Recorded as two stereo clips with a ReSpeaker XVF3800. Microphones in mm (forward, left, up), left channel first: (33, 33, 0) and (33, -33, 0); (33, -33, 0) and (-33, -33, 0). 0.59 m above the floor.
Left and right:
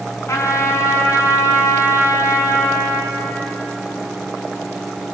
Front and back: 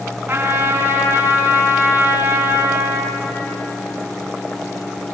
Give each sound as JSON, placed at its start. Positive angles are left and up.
{"t": 0.3, "sound": "a trumpet", "azimuth_deg": 125, "distance_m": 5.0}